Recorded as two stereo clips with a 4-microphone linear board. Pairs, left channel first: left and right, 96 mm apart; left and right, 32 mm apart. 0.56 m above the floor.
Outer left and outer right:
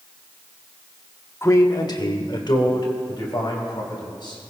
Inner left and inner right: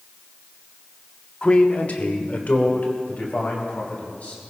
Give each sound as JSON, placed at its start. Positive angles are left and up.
{"t": 1.4, "sound": "a man speaking", "side_deg": 30, "distance_m": 1.0}